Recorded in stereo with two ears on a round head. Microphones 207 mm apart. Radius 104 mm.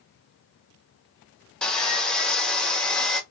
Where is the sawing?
5° left (ahead or behind), 0.7 m.